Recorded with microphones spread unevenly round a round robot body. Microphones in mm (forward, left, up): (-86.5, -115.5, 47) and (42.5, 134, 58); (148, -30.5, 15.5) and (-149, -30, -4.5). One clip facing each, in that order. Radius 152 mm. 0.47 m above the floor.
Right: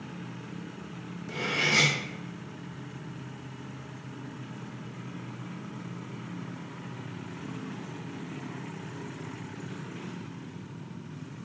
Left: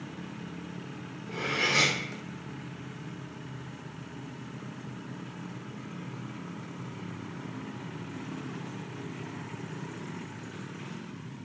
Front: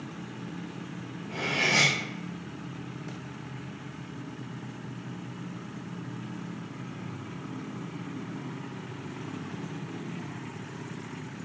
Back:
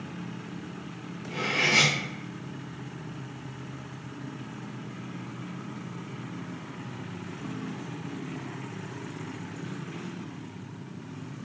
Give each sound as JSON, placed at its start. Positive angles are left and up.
{"t": 1.3, "sound": "cutlery clinking", "azimuth_deg": -105, "distance_m": 1.7}